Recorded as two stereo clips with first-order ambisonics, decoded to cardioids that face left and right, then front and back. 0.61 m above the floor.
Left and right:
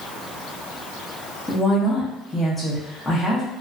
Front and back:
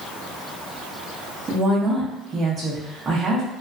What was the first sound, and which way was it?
A woman speaking, 160° left.